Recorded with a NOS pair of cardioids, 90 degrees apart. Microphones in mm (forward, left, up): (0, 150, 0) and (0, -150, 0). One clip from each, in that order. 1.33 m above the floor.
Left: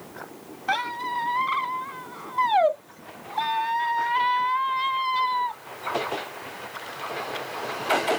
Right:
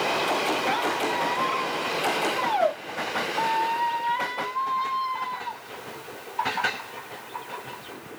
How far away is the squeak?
About 0.9 m.